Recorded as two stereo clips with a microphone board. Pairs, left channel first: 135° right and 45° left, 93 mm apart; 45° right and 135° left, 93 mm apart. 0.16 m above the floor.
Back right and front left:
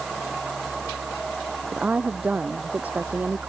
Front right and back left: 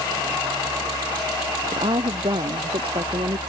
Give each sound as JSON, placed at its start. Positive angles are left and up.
{"t": 1.7, "sound": "a woman speaking", "azimuth_deg": 120}